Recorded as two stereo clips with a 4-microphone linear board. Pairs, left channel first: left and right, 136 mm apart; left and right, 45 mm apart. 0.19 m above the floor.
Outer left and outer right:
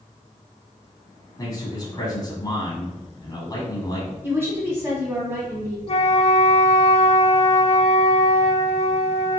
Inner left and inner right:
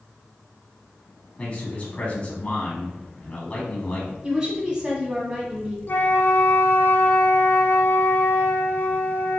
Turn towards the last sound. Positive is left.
turn(degrees=50)  # may be behind; listen again after turning